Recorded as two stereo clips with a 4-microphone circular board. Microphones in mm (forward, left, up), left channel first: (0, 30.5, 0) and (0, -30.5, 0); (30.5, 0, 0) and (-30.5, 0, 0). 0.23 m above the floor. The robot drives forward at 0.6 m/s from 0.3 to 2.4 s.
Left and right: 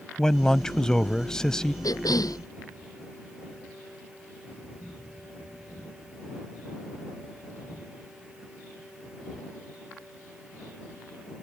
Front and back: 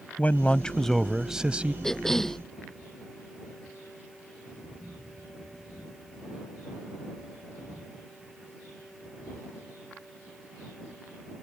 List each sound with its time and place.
0.2 s a man speaking: 20° left; by 1.7 s 155° left
1.8 s a cough: 85° left